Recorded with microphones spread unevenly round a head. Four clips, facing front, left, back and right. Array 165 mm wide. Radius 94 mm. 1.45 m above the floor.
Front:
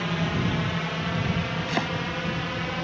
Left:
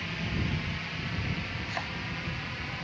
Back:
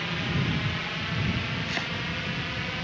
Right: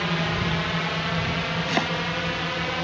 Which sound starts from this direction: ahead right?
A drone, at 0.0 s.